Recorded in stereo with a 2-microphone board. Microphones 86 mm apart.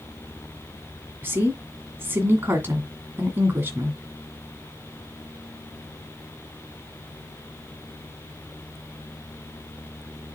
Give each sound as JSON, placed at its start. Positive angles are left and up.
{"t": 1.2, "sound": "a woman speaking", "side_deg": -25, "distance_m": 2.0}